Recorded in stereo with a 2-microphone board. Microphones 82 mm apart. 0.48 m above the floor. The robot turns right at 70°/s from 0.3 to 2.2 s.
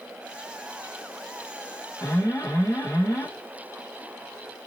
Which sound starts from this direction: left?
An alarm, at 2.0 s.